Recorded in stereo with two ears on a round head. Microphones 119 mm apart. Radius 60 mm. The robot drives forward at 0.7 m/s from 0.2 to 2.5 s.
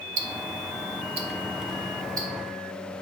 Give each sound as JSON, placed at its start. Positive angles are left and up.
{"t": 0.2, "sound": "ticking", "side_deg": -65, "distance_m": 0.9}